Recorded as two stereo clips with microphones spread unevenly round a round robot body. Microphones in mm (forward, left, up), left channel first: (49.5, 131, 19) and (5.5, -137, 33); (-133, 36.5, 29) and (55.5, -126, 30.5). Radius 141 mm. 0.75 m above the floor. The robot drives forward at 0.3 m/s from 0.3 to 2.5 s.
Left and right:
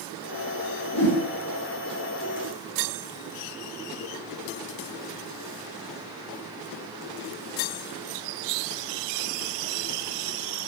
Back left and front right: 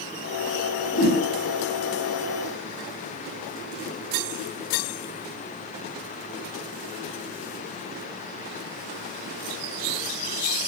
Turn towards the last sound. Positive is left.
turn(degrees=120)